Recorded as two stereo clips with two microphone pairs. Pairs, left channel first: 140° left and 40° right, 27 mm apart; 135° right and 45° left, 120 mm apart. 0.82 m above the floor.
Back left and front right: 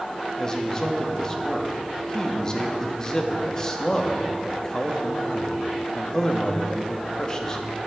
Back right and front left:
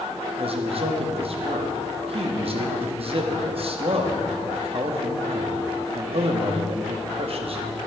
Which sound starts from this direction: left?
A man speaking, at 0.4 s.